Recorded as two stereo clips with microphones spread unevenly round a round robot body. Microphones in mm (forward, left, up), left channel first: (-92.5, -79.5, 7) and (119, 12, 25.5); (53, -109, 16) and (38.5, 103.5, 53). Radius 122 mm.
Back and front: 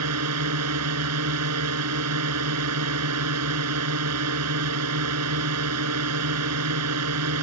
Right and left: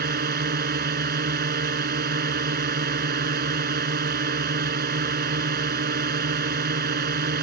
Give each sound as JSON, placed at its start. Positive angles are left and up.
{"t": 0.0, "sound": "a drone", "azimuth_deg": 50}